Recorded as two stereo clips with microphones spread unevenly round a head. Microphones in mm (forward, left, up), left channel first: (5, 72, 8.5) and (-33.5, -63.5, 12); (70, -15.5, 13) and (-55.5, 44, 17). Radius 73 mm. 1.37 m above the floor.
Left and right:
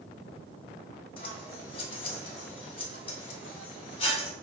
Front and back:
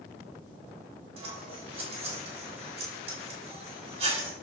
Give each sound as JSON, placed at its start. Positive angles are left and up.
{"t": 1.2, "sound": "scissors", "azimuth_deg": 120, "distance_m": 1.1}